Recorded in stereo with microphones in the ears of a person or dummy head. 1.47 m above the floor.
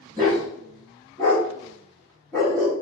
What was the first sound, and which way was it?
A dog barking, 10° left (ahead or behind).